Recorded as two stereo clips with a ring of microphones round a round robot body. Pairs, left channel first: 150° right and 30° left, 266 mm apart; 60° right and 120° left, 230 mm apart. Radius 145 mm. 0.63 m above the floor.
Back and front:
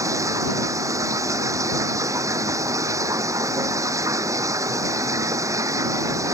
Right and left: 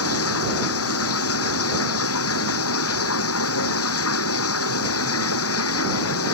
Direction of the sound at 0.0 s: 50° right.